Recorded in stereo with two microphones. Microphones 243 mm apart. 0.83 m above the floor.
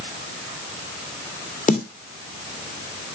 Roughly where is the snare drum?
Left.